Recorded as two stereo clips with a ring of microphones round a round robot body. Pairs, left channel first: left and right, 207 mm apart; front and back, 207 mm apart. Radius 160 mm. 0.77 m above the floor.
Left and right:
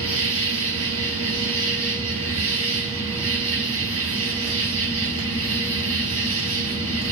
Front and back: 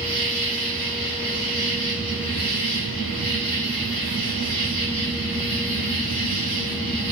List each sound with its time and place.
0.0 s an insect: 110° right, 4 m